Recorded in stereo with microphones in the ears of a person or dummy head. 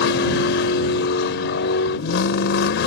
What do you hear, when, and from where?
0.0 s a vehicle: 75° left (ahead or behind)